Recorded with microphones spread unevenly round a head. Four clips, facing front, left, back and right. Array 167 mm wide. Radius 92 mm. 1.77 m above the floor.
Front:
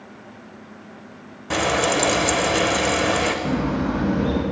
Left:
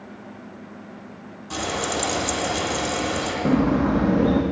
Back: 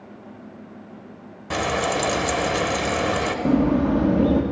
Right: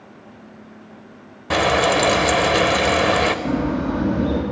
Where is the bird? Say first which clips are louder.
Left 2 dB, back 4 dB; 140° left, 1.3 m.